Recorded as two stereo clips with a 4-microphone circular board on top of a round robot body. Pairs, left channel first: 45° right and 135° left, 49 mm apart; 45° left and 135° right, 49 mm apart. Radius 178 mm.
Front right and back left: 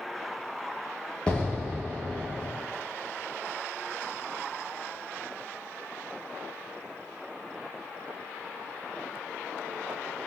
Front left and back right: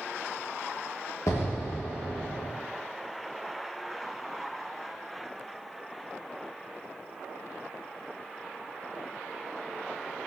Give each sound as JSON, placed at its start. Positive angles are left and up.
{"t": 1.3, "sound": "an explosion", "azimuth_deg": 25, "distance_m": 0.6}